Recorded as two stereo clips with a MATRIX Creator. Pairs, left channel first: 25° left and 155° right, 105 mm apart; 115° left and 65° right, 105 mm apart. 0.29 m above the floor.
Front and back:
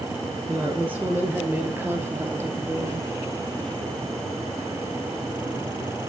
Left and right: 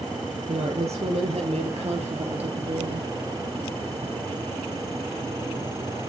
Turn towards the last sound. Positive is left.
turn(degrees=-95)